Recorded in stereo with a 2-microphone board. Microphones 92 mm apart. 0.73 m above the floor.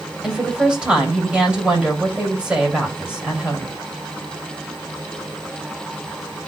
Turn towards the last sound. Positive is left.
turn(degrees=-15)  # may be behind; listen again after turning